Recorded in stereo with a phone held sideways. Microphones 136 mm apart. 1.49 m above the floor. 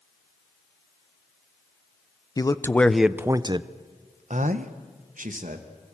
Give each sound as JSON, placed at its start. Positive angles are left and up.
{"t": 2.4, "sound": "a man speaking", "side_deg": 30, "distance_m": 0.9}